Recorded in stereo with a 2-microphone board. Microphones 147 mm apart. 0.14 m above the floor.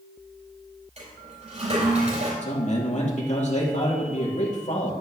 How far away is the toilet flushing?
About 4.5 m.